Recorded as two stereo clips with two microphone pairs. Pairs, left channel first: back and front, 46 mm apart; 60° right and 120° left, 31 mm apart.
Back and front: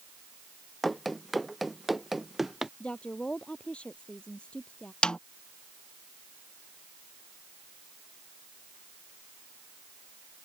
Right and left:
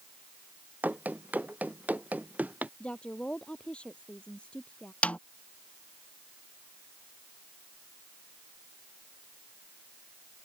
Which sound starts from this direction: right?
A snare drum, at 5.0 s.